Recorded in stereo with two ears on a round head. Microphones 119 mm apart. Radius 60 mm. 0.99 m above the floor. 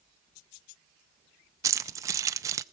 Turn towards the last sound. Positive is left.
turn(degrees=-25)  # may be behind; listen again after turning